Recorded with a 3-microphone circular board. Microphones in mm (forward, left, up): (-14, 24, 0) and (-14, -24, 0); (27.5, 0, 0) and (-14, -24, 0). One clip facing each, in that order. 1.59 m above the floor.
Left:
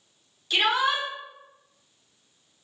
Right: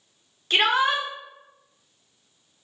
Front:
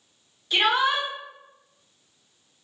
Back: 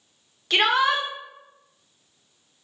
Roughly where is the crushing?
I don't hear crushing.